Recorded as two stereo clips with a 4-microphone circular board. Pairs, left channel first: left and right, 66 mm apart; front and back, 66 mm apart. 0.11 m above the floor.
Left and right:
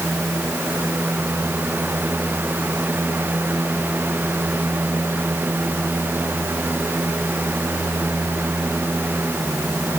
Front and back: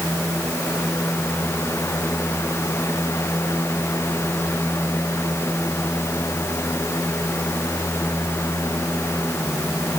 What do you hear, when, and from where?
Only background noise.